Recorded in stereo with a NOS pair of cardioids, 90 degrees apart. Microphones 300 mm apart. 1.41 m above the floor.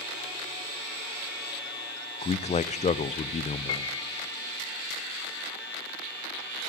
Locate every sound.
2.2 s a man speaking: 25° left, 0.5 m
3.7 s a piano: 55° left, 0.9 m